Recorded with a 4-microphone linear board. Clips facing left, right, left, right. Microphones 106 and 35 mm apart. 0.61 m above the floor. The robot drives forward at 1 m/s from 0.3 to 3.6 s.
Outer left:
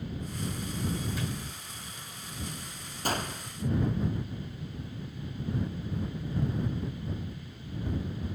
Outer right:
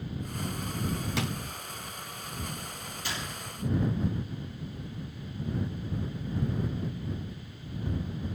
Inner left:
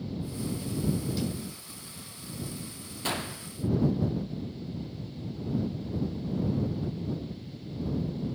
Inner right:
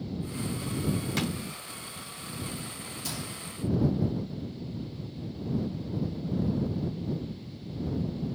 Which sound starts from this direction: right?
A drawer, at 1.2 s.